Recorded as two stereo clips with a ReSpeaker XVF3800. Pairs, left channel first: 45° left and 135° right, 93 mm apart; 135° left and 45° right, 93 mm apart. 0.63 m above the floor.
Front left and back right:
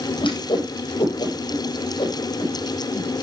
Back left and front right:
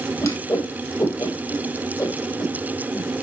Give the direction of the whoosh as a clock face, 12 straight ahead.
9 o'clock.